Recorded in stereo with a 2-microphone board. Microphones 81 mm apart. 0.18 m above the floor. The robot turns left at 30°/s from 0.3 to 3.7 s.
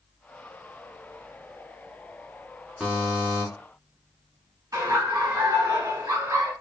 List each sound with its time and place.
2.8 s a buzzer: 5° right (ahead or behind), 1.3 m; by 3.5 s 20° right (ahead or behind), 1.3 m
4.7 s laughter: 35° right (ahead or behind), 1.4 m